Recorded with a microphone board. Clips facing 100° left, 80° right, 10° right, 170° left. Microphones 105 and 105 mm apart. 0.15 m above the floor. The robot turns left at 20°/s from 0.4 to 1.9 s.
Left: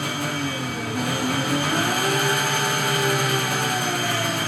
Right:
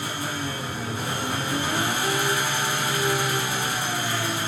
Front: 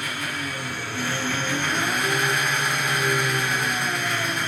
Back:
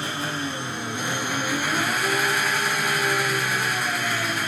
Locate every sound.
0.0 s an engine running: 110° left, 2.5 m; by 4.5 s 80° left, 2.5 m